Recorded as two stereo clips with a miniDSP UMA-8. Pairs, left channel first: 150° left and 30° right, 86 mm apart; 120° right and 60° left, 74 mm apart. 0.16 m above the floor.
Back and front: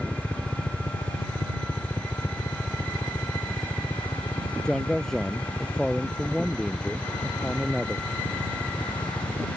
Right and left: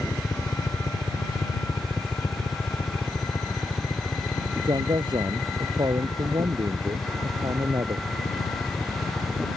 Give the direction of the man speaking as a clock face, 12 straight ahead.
10 o'clock.